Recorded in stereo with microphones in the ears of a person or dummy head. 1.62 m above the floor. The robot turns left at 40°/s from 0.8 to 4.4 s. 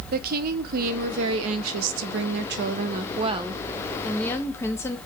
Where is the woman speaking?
50° right, 0.5 m; by 5.0 s 165° left, 0.5 m.